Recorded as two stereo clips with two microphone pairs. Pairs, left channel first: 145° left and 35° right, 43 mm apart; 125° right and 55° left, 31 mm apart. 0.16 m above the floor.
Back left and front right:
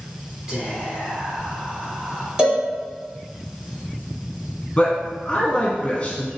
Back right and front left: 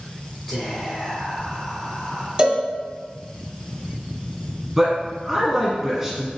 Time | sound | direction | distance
0.5 | whispering | 60° right | 1.3 m
2.4 | a cowbell | 10° left | 1.2 m
4.8 | a man speaking | 120° left | 1.4 m